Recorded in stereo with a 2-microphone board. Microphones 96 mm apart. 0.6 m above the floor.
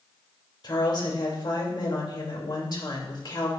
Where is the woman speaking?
50° left (ahead or behind), 3 m.